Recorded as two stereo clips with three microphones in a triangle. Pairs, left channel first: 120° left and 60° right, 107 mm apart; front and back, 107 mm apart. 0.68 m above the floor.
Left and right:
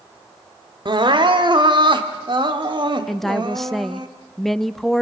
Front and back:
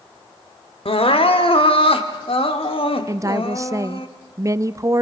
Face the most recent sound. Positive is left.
turn(degrees=-155)